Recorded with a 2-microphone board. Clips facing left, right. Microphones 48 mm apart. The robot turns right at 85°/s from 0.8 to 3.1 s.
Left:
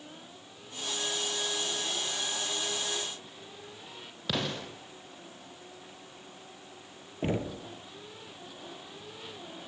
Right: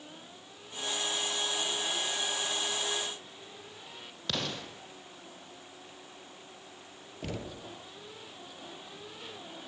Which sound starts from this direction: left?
Knocking, at 7.2 s.